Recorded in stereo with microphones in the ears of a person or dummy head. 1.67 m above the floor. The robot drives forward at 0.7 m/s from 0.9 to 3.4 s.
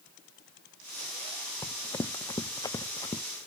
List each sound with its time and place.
1.6 s running footsteps: 15° left (ahead or behind); by 3.2 s 20° left (ahead or behind)